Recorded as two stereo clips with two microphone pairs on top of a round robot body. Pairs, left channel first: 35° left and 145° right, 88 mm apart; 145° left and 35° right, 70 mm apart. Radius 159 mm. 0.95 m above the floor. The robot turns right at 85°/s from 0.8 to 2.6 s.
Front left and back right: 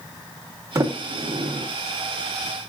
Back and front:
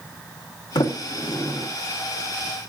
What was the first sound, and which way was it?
A sliding door, 160° left.